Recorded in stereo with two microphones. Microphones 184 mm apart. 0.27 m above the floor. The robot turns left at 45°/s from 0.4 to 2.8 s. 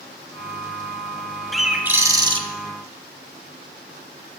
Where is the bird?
Straight ahead, 0.5 m; by 2.4 s 40° right, 0.5 m.